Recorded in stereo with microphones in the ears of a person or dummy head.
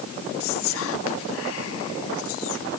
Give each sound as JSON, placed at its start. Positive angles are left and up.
{"t": 0.4, "sound": "whispering", "side_deg": 80, "distance_m": 1.8}